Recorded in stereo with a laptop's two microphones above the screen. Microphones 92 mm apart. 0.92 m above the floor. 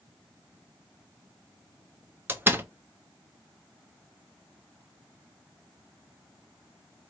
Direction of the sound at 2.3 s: 25° right (ahead or behind).